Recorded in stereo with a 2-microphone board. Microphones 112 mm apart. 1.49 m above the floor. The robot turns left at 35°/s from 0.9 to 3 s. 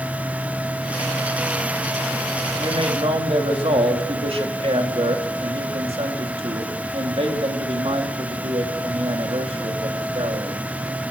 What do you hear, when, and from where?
2.6 s a man speaking: 45° right (ahead or behind), 3.5 m; by 10.6 s 60° right (ahead or behind), 3.5 m